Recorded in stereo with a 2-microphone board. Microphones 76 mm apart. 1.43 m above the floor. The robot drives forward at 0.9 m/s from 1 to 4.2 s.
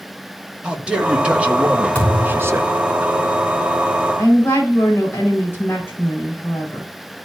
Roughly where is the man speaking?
Centre.